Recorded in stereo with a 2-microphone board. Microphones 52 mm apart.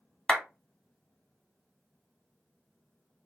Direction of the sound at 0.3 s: 15° left (ahead or behind).